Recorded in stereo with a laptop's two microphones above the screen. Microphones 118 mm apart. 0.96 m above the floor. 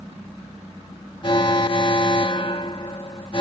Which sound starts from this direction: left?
An alarm, at 1.2 s.